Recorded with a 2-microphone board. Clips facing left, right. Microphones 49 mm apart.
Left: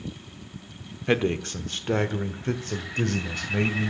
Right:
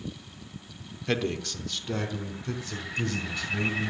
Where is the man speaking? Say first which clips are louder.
Left 5 dB; 25° left (ahead or behind), 0.9 m; by 3.9 s 60° left (ahead or behind), 1.8 m.